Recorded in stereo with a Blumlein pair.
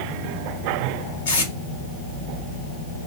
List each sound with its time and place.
1.2 s tape being pulled: 70° left, 1.2 m